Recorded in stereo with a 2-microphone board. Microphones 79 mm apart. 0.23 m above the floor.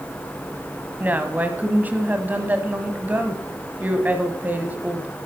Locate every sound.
1.0 s a woman speaking: 20° right (ahead or behind), 1.3 m